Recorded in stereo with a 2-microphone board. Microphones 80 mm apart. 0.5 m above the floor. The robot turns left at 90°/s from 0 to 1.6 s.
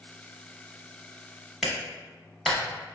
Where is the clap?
Centre (ahead or behind), 1.1 m.